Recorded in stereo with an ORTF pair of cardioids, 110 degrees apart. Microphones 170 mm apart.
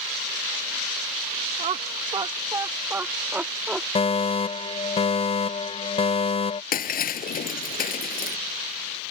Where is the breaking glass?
60° left.